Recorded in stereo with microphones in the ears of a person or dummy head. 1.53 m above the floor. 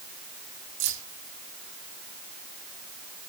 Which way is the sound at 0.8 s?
80° right.